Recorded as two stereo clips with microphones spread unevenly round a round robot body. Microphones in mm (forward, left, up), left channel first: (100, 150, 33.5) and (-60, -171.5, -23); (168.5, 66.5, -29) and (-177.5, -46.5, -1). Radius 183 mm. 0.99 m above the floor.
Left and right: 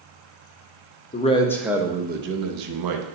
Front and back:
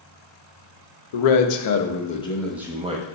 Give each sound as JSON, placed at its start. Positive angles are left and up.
{"t": 1.1, "sound": "a man speaking", "azimuth_deg": -10, "distance_m": 0.9}